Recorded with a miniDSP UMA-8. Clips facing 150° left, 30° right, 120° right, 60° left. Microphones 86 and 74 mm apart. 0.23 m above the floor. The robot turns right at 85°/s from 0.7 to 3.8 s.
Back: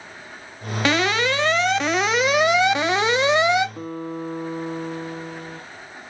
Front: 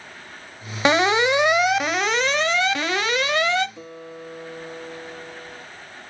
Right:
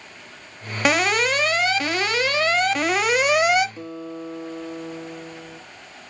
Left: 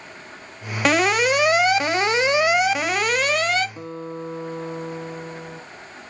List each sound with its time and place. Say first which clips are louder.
0.8 s an alarm: front 3 dB, left 2 dB; 40° right, 1.0 m; by 3.7 s 160° right, 1.0 m
3.8 s a guitar: back 8 dB, left 1 dB; 105° left, 1.6 m; by 5.6 s 110° left, 1.6 m